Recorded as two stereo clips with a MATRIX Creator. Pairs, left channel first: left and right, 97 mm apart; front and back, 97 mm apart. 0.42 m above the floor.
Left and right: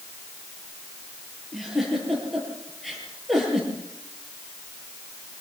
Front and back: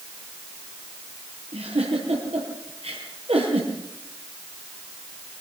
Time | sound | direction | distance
1.5 | a giggle | straight behind | 8 m